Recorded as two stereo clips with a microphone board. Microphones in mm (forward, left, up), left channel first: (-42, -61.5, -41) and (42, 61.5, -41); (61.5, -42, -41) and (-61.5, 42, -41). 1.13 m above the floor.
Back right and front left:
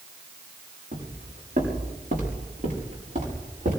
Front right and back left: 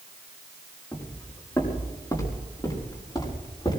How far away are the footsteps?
About 5 m.